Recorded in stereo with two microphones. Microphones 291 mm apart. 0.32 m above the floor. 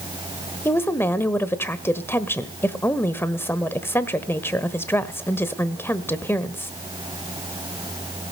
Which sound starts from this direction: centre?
A woman speaking, at 0.7 s.